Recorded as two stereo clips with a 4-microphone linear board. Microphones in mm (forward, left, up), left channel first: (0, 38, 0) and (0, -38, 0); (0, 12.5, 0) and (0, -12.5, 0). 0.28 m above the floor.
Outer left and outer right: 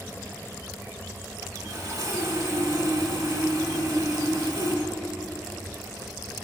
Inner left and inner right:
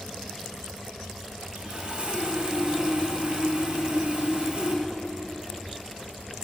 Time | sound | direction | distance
1.6 | sawing | 55° right (ahead or behind) | 1.1 m